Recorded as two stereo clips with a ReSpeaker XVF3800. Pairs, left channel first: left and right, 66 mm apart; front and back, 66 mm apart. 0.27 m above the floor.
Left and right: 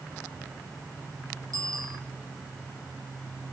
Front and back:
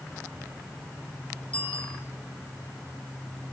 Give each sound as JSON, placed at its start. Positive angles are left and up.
{"t": 1.5, "sound": "a bicycle bell", "azimuth_deg": -75, "distance_m": 7.5}